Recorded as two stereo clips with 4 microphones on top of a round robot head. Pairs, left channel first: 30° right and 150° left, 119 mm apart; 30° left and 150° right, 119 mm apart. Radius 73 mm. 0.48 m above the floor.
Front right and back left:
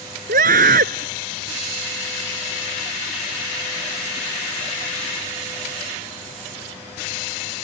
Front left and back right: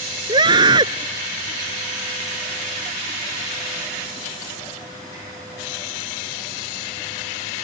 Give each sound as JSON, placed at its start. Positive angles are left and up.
{"t": 0.3, "sound": "a scream", "azimuth_deg": 155}